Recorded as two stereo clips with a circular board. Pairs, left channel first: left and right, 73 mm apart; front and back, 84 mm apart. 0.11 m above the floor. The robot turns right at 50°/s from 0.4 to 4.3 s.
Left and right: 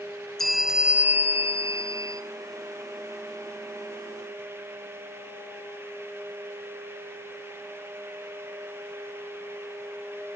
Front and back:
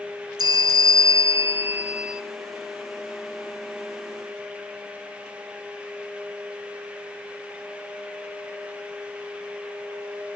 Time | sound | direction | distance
0.4 | a bell | 175° left | 1.3 m